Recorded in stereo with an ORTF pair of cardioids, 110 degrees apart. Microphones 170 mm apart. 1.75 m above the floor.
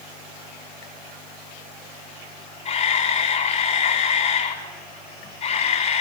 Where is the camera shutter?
45° left, 8 m.